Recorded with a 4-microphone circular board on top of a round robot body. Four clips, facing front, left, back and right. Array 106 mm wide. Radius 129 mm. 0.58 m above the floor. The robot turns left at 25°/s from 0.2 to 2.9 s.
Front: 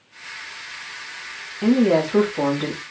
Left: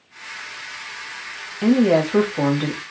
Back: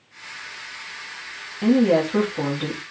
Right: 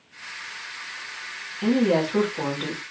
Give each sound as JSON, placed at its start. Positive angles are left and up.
{"t": 1.6, "sound": "a woman speaking", "azimuth_deg": 95, "distance_m": 1.2}